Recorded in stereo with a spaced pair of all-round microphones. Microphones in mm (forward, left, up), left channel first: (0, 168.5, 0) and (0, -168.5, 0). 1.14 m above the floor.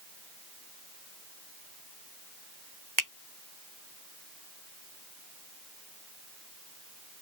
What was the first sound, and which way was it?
A finger snap, 65° right (ahead or behind).